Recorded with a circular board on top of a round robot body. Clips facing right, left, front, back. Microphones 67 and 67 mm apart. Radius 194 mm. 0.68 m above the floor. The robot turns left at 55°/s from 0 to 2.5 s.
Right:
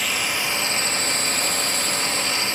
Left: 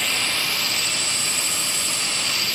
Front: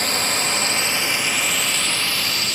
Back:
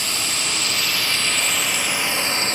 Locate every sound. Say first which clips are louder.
0.0 s a drone: right 1 dB, front 4 dB; 5° right; by 2.5 s 140° right